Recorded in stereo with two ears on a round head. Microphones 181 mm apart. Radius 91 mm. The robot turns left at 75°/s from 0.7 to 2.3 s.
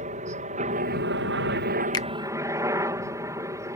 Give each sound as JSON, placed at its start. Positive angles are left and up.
{"t": 0.0, "sound": "a helicopter", "azimuth_deg": -40}
{"t": 1.9, "sound": "a finger snap", "side_deg": 20}